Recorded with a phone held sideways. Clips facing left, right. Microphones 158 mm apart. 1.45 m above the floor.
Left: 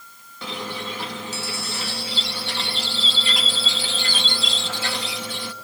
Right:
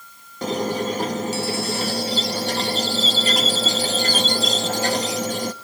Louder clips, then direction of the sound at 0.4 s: Right 9 dB; 45° right (ahead or behind).